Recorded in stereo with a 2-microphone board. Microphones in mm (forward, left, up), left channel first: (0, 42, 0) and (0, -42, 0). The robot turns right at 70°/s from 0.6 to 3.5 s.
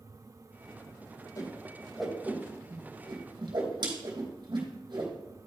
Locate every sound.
1.4 s a whoosh: 45° left (ahead or behind), 3 m; by 5.1 s 70° right (ahead or behind), 3 m